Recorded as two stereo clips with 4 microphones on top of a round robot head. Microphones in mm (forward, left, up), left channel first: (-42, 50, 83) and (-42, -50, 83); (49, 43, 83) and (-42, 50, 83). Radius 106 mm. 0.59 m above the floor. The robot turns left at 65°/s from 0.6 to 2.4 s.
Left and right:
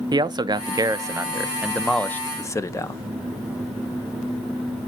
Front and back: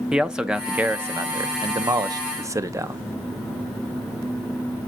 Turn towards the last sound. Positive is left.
turn(degrees=135)